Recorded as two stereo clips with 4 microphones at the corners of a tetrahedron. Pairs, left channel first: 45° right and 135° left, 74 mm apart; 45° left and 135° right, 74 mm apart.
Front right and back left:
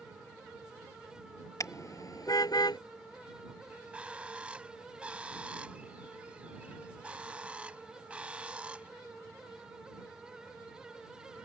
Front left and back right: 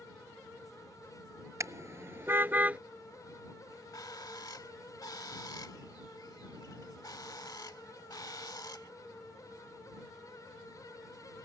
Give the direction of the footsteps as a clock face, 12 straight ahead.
No footsteps in this recording.